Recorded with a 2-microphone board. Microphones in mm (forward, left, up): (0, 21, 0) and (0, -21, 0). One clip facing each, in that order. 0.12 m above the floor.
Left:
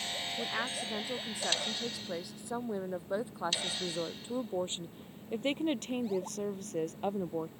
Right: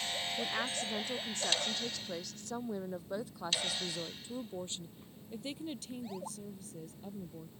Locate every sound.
0.4 s a woman speaking: 5° left (ahead or behind); by 7.5 s 65° left (ahead or behind)